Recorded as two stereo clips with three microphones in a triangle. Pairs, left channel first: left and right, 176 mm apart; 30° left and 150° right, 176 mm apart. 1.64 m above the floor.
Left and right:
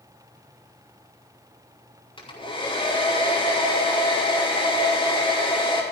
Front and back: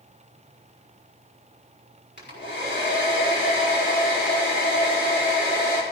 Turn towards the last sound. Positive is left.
turn(degrees=30)